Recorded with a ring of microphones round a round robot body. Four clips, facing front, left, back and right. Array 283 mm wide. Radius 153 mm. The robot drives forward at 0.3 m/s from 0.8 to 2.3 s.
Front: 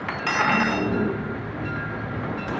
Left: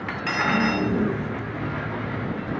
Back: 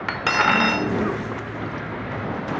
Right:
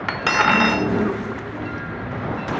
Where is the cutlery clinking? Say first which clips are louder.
Right 6 dB, back 3 dB; 120° right, 1.0 m.